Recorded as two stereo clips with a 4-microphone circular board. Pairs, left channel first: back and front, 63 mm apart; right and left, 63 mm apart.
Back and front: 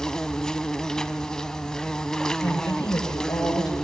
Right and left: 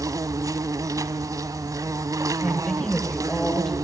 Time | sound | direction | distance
0.0 | an insect | 100° left | 0.9 m
2.4 | a woman speaking | 170° right | 8 m